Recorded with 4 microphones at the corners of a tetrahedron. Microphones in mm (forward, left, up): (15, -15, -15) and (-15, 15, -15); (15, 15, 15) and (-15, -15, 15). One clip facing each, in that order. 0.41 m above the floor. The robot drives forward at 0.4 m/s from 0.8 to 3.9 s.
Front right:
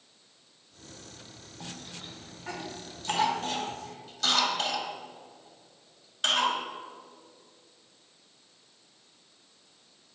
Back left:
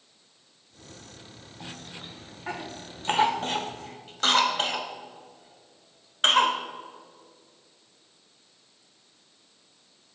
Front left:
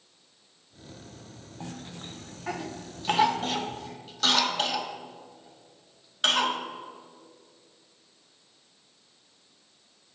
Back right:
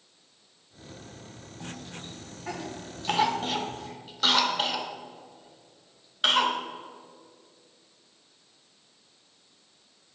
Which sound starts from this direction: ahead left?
A cough, at 1.6 s.